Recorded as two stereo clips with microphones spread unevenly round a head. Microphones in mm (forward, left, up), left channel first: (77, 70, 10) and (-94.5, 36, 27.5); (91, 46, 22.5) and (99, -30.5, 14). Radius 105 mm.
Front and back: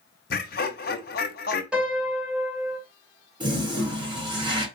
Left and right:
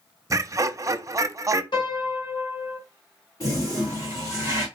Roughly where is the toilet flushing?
Behind left.